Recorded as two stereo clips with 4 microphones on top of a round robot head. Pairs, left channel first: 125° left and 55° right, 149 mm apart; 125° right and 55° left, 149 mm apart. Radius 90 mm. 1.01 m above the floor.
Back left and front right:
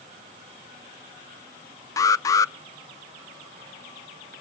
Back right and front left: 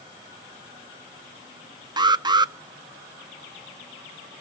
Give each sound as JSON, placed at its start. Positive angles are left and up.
{"t": 2.0, "sound": "an alarm", "azimuth_deg": 80, "distance_m": 0.6}